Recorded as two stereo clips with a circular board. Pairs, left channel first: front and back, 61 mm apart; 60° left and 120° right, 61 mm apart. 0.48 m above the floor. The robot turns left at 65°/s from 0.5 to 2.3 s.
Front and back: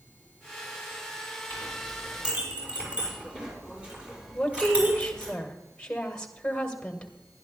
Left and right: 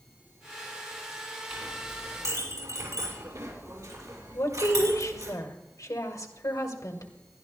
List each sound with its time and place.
1.5 s a clink: 55° right, 7 m; by 5.3 s 110° right, 7 m
4.3 s a woman speaking: 75° left, 1.9 m